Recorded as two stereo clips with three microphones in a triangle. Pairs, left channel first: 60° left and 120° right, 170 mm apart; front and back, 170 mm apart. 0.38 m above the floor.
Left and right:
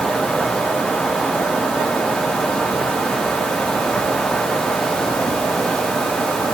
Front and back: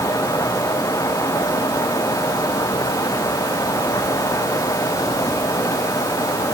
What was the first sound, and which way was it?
Only background noise.